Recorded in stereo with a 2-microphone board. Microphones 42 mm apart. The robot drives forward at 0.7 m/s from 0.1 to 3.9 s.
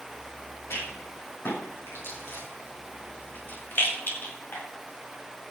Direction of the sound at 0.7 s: 80° left.